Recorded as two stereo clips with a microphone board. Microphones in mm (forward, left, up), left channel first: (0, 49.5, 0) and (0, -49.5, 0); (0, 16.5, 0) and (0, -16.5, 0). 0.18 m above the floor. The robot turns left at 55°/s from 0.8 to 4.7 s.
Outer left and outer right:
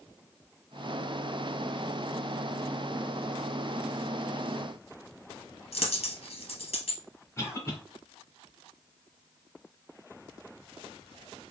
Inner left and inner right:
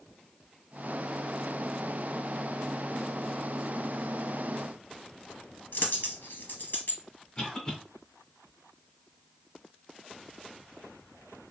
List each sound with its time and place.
5.7 s a dropped coin: 70° left (ahead or behind), 1.4 m
7.4 s a cough: 25° left (ahead or behind), 1.6 m